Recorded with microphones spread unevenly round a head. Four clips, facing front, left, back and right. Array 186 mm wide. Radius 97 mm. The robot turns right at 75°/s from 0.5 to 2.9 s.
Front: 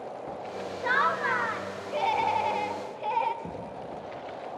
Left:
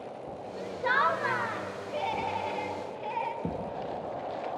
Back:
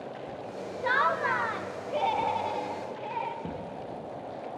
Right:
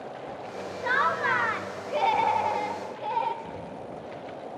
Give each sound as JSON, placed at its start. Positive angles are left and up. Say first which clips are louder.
{"t": 0.8, "sound": "laughter", "louder": "right 1 dB, even", "azimuth_deg": 160, "distance_m": 0.7}
{"t": 3.4, "sound": "a thud", "louder": "left 3 dB, even", "azimuth_deg": 100, "distance_m": 5.5}